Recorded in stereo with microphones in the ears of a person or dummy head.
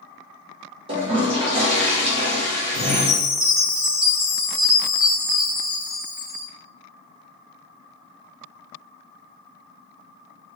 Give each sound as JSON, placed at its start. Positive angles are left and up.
{"t": 0.9, "sound": "a toilet flushing", "side_deg": -40, "distance_m": 1.1}
{"t": 2.7, "sound": "a chime", "side_deg": -35, "distance_m": 1.5}